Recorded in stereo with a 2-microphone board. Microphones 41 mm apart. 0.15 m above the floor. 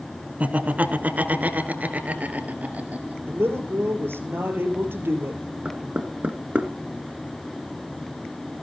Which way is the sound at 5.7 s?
30° right (ahead or behind).